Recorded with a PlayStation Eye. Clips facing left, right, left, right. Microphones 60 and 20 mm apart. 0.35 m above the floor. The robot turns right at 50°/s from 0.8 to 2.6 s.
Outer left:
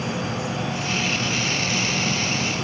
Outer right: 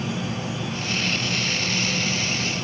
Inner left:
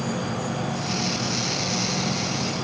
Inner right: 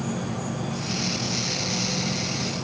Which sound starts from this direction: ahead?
An insect, at 0.0 s.